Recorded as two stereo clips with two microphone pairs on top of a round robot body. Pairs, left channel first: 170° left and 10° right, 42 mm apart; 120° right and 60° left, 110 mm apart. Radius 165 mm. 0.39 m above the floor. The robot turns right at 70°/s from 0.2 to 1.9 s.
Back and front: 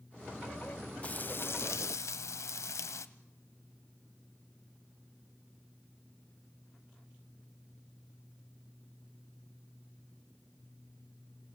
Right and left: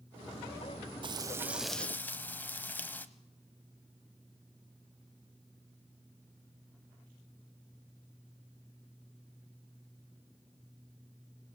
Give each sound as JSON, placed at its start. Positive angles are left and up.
{"t": 1.0, "sound": "frying", "azimuth_deg": 105, "distance_m": 0.9}